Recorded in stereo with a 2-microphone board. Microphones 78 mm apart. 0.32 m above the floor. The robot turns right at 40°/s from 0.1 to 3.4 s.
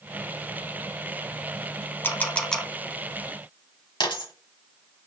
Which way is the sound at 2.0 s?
25° left (ahead or behind).